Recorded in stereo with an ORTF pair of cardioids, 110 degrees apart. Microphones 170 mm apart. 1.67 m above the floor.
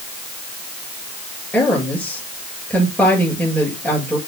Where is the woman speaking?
10° left, 7.5 m.